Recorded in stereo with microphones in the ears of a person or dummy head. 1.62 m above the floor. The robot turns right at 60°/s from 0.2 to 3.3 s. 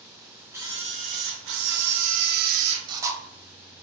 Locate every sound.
0.5 s a camera shutter: 165° right, 0.7 m; by 3.2 s 5° right, 0.7 m